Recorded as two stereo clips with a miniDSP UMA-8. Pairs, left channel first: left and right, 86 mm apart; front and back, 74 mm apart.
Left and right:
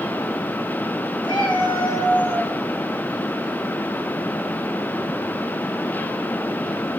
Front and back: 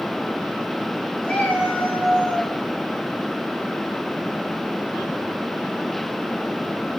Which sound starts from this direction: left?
A cat meowing, at 1.2 s.